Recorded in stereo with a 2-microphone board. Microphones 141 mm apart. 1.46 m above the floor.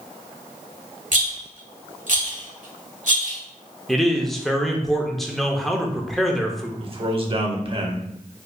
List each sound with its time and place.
1.1 s a rattle: 65° right (ahead or behind), 1.1 m
3.9 s a man speaking: centre (ahead or behind), 0.6 m
6.8 s a man speaking: 40° right (ahead or behind), 0.7 m